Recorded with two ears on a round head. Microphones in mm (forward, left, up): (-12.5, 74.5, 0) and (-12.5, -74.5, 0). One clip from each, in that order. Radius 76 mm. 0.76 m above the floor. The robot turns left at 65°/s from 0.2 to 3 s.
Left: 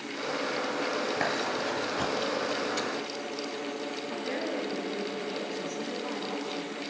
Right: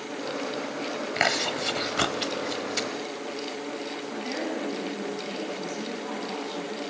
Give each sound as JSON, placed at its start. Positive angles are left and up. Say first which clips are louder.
{"t": 1.2, "sound": "chewing", "louder": "right 4 dB", "side_deg": -45, "distance_m": 1.0}
{"t": 4.1, "sound": "a woman speaking", "louder": "right 1 dB", "side_deg": 5, "distance_m": 6.5}